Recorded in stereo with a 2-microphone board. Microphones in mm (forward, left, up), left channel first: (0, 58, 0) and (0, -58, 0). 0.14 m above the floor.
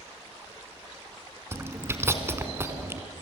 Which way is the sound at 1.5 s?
20° right (ahead or behind).